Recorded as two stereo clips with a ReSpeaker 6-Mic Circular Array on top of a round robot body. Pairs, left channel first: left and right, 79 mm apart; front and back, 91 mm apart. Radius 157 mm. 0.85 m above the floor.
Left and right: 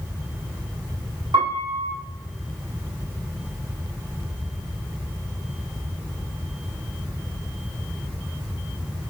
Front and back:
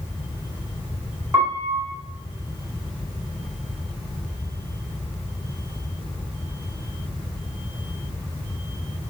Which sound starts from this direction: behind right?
A piano, at 1.3 s.